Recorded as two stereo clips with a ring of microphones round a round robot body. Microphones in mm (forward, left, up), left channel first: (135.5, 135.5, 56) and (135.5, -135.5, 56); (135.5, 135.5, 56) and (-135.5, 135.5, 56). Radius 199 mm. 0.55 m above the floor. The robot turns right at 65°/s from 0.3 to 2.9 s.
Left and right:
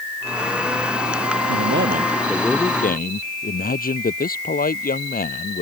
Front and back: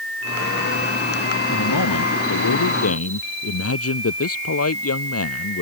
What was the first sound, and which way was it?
A man speaking, 60° right.